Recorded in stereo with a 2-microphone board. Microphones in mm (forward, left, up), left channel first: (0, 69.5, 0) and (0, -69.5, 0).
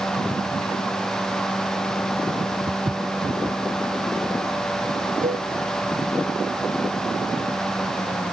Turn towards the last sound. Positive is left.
turn(degrees=-70)  # may be behind; listen again after turning